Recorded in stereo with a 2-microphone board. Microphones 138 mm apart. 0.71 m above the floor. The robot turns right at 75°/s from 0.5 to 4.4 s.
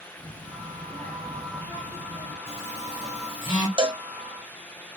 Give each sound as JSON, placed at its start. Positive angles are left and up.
{"t": 0.2, "sound": "a child speaking", "azimuth_deg": -35, "distance_m": 1.2}
{"t": 2.5, "sound": "a phone buzzing", "side_deg": 45, "distance_m": 1.8}
{"t": 3.8, "sound": "a cowbell", "side_deg": -40, "distance_m": 0.7}